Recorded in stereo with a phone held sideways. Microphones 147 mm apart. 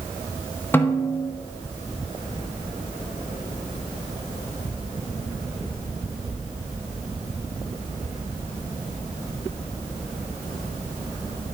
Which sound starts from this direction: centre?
A snare drum, at 0.7 s.